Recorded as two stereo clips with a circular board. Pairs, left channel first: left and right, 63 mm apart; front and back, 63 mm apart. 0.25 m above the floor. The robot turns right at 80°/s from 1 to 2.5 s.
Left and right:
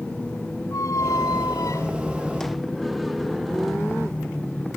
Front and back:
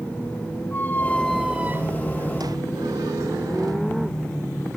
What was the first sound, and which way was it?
A squeak, 60° left.